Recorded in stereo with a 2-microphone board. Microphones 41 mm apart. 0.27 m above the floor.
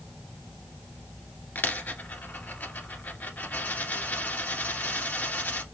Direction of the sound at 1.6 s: 45° left (ahead or behind).